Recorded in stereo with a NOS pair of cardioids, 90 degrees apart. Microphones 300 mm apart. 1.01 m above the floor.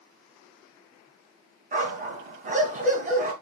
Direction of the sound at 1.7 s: 25° right.